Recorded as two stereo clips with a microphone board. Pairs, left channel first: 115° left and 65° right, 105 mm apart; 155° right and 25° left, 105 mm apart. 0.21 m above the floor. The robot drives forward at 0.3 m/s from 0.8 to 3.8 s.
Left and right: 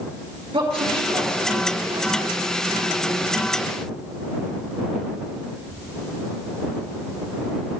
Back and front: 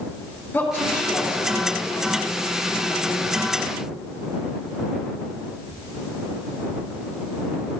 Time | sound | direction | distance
0.5 | a woman speaking | 90° right | 4 m